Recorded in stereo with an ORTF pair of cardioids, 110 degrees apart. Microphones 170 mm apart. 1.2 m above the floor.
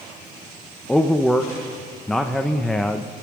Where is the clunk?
I don't hear a clunk.